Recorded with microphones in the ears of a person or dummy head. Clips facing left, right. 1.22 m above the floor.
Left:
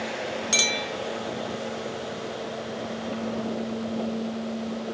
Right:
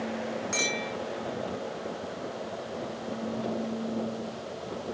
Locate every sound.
0.5 s a clink: 55° left (ahead or behind), 2.5 m